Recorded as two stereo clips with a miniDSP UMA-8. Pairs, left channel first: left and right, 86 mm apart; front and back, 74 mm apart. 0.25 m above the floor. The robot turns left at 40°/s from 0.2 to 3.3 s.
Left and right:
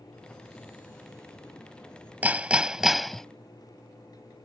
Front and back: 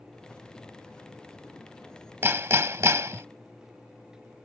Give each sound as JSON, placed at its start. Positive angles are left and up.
{"t": 2.2, "sound": "hammering", "azimuth_deg": -150}